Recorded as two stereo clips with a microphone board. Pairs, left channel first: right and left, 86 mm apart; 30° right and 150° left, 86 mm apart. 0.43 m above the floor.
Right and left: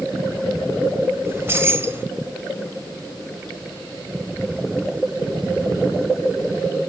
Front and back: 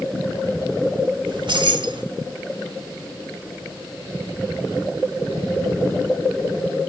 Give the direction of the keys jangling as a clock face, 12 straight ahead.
7 o'clock.